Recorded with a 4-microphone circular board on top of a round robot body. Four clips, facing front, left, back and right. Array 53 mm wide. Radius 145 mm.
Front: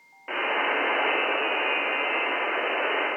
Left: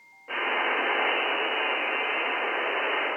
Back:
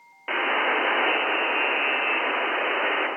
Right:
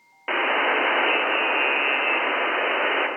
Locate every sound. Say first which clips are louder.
0.3 s a buzzer: right 5 dB, back 2 dB; 110° right, 0.7 m